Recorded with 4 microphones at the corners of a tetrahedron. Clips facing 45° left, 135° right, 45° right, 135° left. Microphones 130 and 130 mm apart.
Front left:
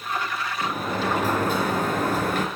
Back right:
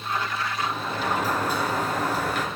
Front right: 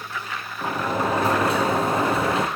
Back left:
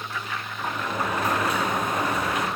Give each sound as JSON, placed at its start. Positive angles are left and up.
{"t": 0.6, "sound": "a sliding door", "azimuth_deg": 10, "distance_m": 1.5}